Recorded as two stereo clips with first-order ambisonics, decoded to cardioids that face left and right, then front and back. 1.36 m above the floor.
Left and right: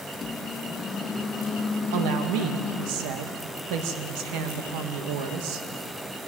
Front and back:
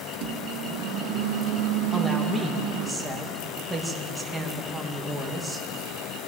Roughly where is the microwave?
Behind.